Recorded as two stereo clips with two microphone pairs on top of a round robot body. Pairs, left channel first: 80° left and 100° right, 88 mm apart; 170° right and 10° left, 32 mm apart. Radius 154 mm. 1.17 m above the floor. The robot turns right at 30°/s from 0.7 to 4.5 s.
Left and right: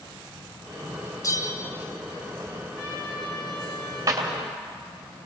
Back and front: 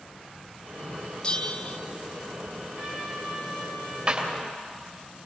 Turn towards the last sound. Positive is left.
turn(degrees=-30)